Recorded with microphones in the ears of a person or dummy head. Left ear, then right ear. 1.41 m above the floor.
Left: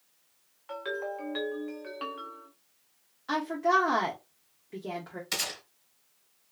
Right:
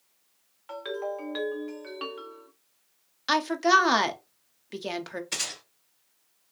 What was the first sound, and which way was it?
A ringtone, 5° right (ahead or behind).